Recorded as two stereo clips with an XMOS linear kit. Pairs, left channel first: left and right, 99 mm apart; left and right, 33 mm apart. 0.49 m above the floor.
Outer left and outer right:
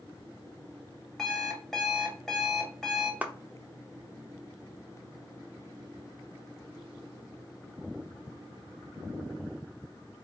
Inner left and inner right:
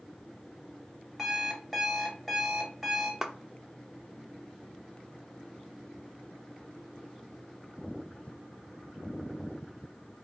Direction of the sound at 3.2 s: 15° right (ahead or behind).